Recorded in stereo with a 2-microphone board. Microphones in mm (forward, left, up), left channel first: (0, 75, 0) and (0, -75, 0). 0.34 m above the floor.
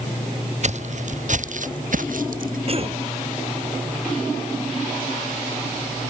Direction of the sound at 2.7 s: 40° right (ahead or behind).